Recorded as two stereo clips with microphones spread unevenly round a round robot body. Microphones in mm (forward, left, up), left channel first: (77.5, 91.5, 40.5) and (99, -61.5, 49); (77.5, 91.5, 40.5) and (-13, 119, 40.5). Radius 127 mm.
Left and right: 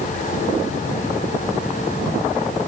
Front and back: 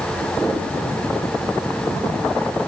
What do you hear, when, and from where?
Only background noise.